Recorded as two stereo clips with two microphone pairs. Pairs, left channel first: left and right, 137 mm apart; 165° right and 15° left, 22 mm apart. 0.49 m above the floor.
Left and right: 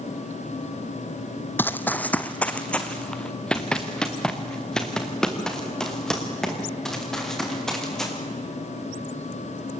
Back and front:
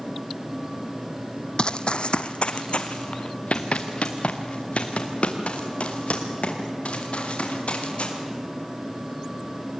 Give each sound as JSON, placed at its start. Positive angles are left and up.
{"t": 1.6, "sound": "running footsteps", "azimuth_deg": 160, "distance_m": 0.8}